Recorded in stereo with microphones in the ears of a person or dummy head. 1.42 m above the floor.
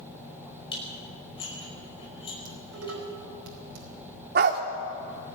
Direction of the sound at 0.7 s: 30° left (ahead or behind).